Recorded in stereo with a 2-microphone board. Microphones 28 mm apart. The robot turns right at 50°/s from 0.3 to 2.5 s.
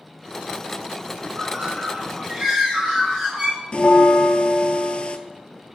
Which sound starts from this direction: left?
A bell, at 3.7 s.